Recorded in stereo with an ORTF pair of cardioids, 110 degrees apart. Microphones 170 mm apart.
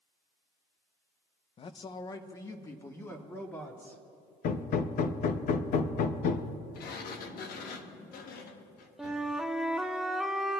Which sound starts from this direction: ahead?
A flute, at 9.0 s.